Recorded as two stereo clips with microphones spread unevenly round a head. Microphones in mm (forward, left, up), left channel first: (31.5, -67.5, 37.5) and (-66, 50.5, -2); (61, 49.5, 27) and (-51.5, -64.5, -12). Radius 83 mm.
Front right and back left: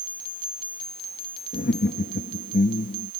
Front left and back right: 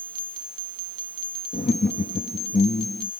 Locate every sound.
1.5 s laughter: 10° right